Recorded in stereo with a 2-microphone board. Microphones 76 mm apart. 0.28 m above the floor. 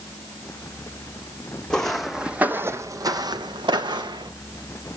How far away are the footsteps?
About 0.8 m.